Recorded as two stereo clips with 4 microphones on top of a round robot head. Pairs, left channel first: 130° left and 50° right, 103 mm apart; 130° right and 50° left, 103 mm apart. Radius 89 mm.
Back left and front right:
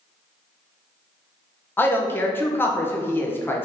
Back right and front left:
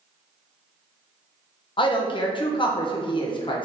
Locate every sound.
1.8 s a man speaking: 160° right, 0.8 m